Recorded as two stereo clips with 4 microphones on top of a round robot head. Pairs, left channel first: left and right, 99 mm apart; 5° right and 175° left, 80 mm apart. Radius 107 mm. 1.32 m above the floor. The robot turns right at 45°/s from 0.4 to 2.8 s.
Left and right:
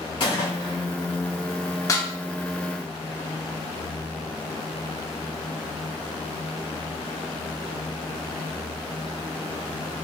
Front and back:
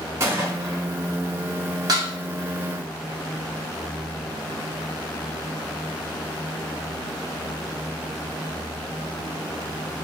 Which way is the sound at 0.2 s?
120° left.